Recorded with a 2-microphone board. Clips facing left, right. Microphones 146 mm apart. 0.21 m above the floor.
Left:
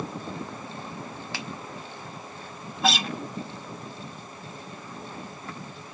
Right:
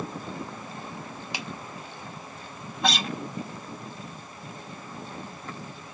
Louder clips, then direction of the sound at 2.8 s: Left 2 dB; centre (ahead or behind).